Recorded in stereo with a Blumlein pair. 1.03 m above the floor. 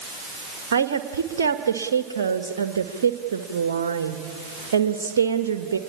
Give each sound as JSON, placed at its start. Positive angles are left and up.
{"t": 0.7, "sound": "a woman speaking", "azimuth_deg": -65, "distance_m": 1.2}